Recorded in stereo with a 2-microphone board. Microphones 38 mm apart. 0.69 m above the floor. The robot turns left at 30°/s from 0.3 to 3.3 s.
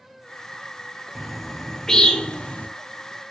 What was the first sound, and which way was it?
A bird, 10° right (ahead or behind).